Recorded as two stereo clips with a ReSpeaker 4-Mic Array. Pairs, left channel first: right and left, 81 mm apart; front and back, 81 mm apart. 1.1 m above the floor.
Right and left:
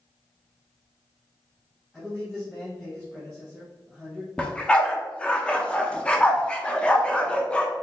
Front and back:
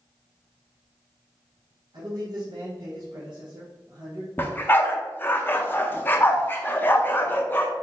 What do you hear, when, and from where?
1.9 s a man speaking: straight behind, 1.3 m
4.4 s a dog barking: 30° right, 0.6 m